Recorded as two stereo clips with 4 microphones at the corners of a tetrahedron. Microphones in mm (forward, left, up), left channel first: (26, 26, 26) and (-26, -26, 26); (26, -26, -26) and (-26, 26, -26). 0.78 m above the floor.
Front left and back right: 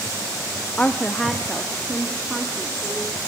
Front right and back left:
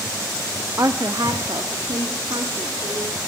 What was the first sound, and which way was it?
A woman speaking, 115° left.